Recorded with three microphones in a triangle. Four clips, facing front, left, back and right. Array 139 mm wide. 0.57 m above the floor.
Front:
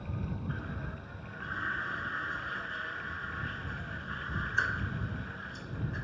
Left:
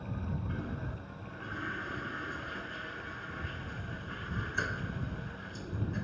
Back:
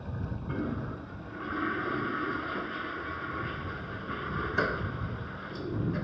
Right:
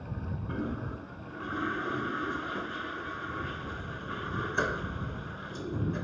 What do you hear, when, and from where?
0.5 s a toilet flushing: 140° right